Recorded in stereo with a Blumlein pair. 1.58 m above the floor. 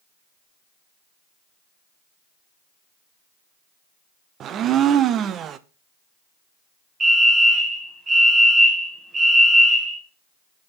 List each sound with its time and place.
4.4 s a blender: 30° right, 0.6 m
7.0 s a fire alarm: 20° right, 2 m